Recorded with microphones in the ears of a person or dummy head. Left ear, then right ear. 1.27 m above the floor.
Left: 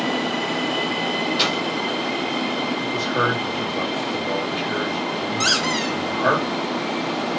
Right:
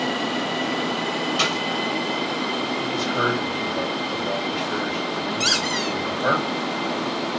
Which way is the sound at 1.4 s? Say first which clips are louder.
Left 1 dB; 15° right (ahead or behind).